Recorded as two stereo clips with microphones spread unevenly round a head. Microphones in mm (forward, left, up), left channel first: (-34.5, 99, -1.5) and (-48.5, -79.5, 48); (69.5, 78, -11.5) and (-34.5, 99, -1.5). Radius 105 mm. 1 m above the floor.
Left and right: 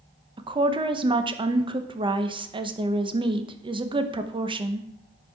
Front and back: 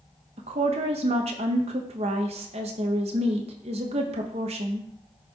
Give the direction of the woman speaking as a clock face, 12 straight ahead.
5 o'clock.